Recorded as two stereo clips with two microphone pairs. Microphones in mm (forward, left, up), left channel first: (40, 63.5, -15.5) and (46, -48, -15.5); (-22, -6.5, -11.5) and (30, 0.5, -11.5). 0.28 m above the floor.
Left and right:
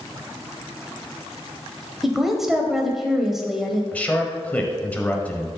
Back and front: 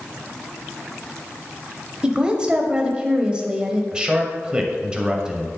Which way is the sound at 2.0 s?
5° right.